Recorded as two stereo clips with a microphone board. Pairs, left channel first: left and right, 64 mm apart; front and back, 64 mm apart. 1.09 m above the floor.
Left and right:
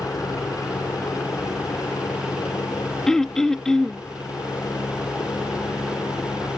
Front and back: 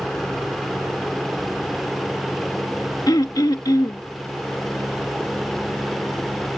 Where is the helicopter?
85° left; by 6.6 s 75° left.